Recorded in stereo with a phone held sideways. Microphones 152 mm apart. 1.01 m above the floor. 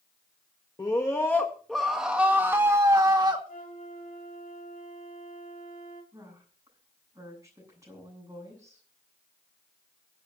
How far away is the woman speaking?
About 7.5 m.